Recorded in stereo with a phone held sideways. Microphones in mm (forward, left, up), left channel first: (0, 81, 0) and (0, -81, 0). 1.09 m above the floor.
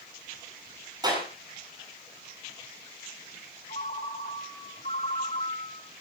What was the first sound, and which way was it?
A clap, 25° right (ahead or behind).